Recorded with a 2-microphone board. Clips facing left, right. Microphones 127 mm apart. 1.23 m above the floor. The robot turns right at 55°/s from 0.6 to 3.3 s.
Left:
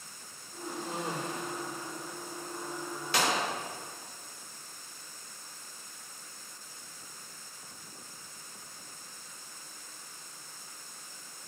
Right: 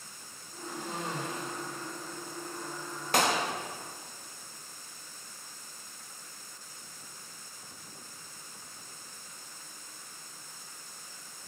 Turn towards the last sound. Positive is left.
turn(degrees=-55)  # may be behind; listen again after turning